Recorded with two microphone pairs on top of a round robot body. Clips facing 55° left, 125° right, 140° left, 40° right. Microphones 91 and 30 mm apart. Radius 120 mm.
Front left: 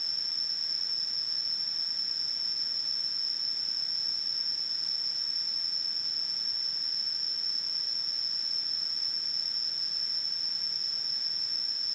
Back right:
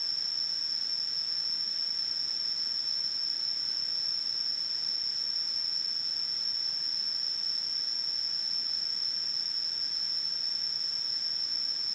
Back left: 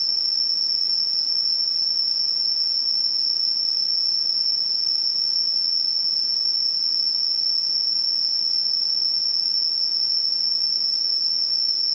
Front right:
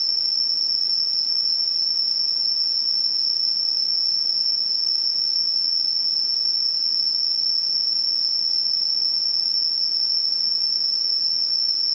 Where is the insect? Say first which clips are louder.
Even, even; 30° left, 2.5 m.